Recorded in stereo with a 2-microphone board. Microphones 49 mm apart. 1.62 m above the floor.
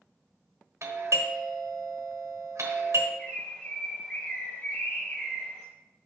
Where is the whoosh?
No whoosh in this recording.